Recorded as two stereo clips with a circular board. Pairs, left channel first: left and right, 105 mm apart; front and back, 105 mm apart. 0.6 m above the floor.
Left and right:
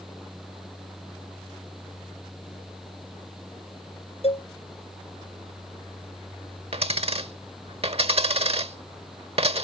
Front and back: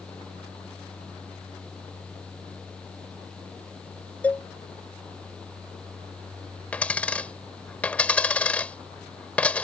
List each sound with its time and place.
4.2 s a cowbell: 75° left
6.7 s a dropped coin: 75° right